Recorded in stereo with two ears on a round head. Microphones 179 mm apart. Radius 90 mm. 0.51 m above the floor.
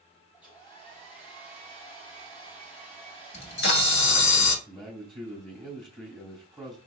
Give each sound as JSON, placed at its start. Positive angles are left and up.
{"t": 0.3, "sound": "a hair dryer", "side_deg": 25, "distance_m": 3.0}
{"t": 3.3, "sound": "a camera shutter", "side_deg": 60, "distance_m": 1.4}
{"t": 4.7, "sound": "a man speaking", "side_deg": 0, "distance_m": 2.5}